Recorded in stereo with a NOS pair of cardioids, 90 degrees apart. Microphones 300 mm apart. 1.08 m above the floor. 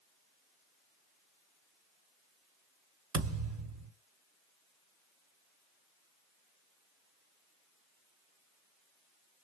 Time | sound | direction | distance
3.1 | a thud | 50° right | 1.4 m